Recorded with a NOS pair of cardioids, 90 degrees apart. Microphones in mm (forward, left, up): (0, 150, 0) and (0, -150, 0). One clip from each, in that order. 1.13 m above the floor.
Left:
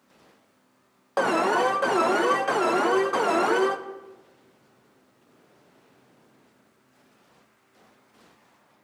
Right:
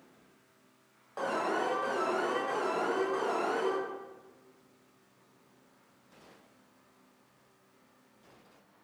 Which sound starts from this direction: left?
An alarm, at 1.2 s.